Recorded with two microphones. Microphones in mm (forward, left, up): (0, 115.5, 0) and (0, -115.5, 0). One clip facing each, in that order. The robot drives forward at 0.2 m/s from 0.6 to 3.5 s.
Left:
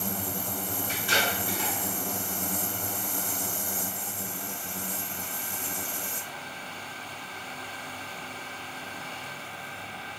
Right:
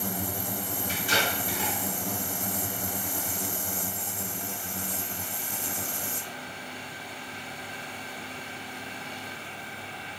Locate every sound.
0.9 s tape being pulled: 40° right (ahead or behind), 1.2 m